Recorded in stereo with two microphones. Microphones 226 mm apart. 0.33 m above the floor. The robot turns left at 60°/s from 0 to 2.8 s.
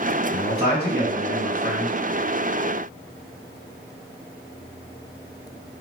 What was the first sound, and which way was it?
A man speaking, 35° right.